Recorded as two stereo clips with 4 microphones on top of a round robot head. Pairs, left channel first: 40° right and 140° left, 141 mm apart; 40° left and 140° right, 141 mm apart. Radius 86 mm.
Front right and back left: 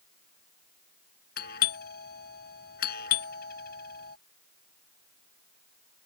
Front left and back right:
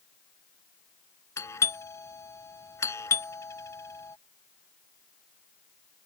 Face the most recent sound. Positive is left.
turn(degrees=-30)